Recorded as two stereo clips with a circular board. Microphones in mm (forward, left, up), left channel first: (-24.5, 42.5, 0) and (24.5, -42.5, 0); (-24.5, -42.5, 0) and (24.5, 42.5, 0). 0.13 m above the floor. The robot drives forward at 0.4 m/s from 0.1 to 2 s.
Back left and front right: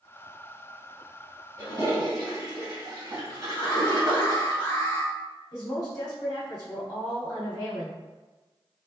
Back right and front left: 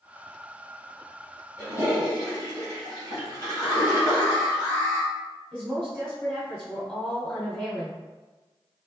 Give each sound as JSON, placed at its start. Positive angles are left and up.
{"t": 1.6, "sound": "a toilet flushing", "azimuth_deg": -80, "distance_m": 1.7}
{"t": 3.6, "sound": "an alarm", "azimuth_deg": 180, "distance_m": 1.5}
{"t": 5.5, "sound": "a woman speaking", "azimuth_deg": 170, "distance_m": 1.5}